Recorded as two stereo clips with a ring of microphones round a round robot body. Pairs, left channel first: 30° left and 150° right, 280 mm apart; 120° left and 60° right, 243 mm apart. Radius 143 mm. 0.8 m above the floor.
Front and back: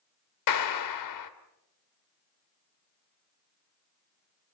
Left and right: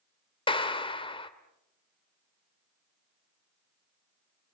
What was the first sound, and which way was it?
A clap, 50° left.